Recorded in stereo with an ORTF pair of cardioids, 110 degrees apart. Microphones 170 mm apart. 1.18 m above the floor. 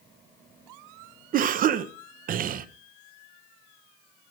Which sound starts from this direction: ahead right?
A cough, at 1.3 s.